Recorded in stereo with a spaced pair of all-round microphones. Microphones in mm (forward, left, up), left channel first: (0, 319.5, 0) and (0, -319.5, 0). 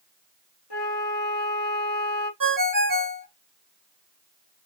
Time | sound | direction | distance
0.7 | a flute | 40° left (ahead or behind) | 2.5 m
2.4 | a ringtone | 30° right (ahead or behind) | 2 m